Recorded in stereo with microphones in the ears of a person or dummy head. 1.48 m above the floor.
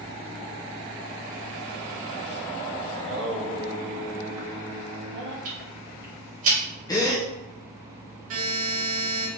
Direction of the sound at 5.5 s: 45° right (ahead or behind).